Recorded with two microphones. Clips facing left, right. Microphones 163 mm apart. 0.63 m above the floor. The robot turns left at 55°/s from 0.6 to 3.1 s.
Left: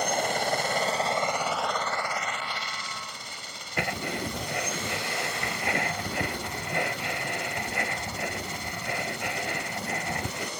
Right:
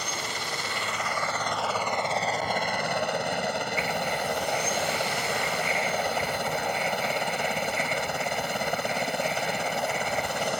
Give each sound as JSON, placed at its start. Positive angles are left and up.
{"t": 0.0, "sound": "a helicopter", "side_deg": 50}
{"t": 3.8, "sound": "writing", "side_deg": 65}